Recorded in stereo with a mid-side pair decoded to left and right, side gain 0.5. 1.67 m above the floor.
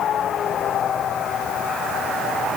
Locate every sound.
Only background noise.